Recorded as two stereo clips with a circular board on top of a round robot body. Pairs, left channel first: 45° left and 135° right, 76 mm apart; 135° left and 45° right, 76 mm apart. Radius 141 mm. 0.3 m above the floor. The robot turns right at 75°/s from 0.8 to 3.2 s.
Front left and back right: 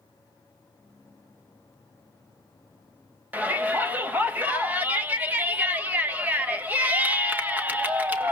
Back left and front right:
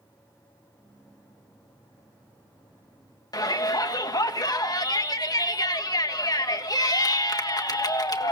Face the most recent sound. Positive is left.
turn(degrees=160)